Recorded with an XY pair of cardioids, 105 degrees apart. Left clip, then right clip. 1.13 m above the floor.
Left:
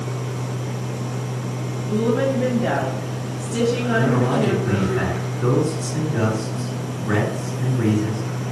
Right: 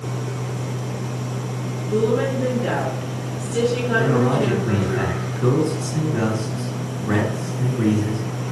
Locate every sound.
1.9 s a woman speaking: 25° left, 1.5 m
4.0 s a man speaking: 15° right, 2.5 m